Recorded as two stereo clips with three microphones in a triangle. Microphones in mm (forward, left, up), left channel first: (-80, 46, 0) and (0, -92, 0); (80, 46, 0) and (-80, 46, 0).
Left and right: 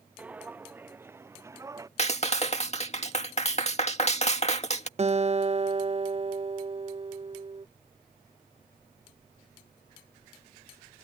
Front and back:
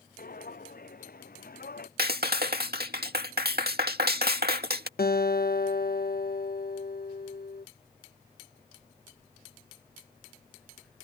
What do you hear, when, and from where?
0.2 s footsteps: 20° left; by 1.9 s 10° left
2.0 s a clap: 165° left
5.0 s a guitar: 15° right